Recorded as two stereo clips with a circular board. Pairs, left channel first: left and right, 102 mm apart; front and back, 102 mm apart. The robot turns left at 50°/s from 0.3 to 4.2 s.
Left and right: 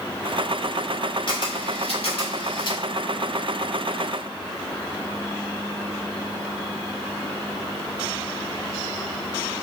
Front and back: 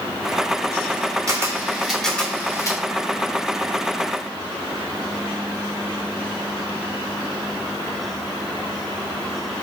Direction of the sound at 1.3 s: 125° left.